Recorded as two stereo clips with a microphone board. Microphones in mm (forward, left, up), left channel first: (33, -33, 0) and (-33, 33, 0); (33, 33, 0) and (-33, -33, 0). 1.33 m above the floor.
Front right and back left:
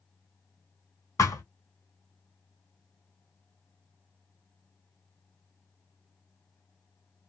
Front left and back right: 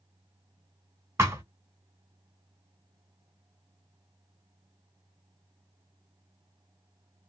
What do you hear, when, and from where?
1.2 s a thud: 85° right, 1.4 m